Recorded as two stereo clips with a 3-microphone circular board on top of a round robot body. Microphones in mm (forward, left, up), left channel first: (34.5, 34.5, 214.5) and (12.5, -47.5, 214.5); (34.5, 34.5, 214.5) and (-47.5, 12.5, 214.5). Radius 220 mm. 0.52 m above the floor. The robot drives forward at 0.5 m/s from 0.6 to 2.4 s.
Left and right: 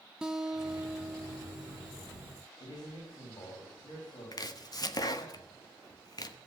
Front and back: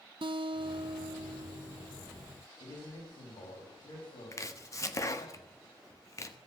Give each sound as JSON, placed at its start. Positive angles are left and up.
{"t": 0.2, "sound": "a guitar", "azimuth_deg": 175, "distance_m": 0.5}
{"t": 2.6, "sound": "a man speaking", "azimuth_deg": 35, "distance_m": 5.0}
{"t": 4.3, "sound": "chopping", "azimuth_deg": 55, "distance_m": 1.6}